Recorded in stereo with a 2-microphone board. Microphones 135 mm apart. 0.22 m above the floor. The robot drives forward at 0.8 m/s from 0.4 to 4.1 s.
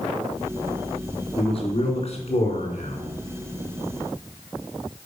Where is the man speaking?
50° left (ahead or behind), 3 m; by 3.1 s 55° left (ahead or behind), 3 m.